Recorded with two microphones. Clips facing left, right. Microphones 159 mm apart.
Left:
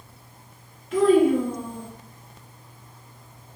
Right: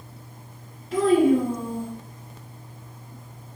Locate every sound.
0.9 s a child speaking: 35° right (ahead or behind), 1.3 m